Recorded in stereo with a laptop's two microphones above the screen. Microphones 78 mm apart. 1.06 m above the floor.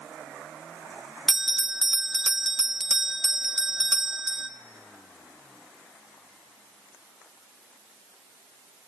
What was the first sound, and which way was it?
A bell, 5° right (ahead or behind).